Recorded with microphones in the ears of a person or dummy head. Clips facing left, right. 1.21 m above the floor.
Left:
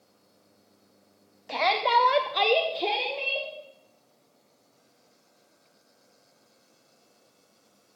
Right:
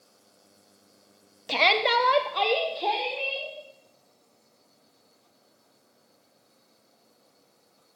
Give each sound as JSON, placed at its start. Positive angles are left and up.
{"t": 1.5, "sound": "a shout", "side_deg": -50, "distance_m": 0.7}